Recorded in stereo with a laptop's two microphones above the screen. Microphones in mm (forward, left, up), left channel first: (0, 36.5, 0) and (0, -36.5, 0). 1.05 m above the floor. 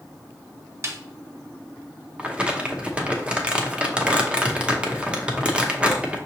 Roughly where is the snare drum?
Right.